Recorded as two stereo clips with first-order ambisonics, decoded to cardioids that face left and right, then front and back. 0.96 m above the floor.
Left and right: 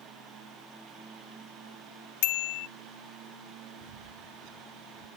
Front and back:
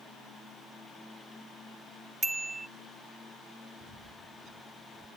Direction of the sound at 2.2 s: 95° left.